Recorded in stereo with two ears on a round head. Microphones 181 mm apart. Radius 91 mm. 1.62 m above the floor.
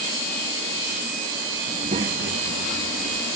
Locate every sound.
1.7 s a child speaking: 25° right (ahead or behind); by 3.2 s 60° right (ahead or behind)